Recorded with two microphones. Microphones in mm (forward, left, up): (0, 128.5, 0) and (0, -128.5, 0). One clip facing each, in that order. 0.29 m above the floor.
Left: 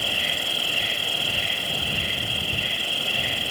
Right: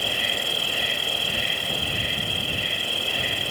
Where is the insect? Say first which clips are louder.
Right 2 dB; 60° right (ahead or behind).